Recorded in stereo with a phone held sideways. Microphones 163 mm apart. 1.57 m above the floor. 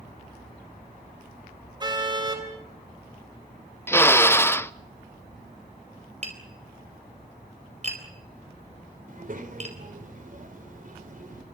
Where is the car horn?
25° right (ahead or behind), 4 m.